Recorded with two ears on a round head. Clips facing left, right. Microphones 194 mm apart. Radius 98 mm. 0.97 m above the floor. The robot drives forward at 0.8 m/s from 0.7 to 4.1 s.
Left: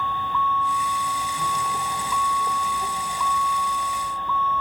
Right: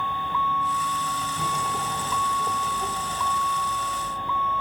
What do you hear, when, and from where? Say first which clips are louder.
0.0 s a vehicle: left 2 dB; 10° right (ahead or behind)